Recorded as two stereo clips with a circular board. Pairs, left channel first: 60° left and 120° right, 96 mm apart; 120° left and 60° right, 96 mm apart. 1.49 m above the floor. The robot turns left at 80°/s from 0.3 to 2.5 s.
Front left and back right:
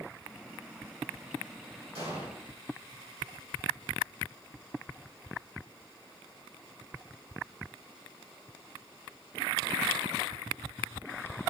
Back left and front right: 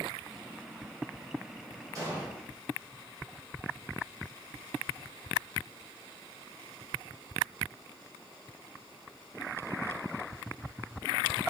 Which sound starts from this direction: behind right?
An explosion, at 1.9 s.